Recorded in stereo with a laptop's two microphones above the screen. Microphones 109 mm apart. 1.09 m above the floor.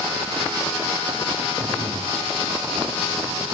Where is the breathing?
60° right (ahead or behind), 2.5 m.